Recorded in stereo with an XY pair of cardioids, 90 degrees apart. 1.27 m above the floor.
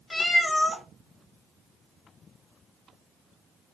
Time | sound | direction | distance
0.1 | a cat meowing | 25° left | 1.4 m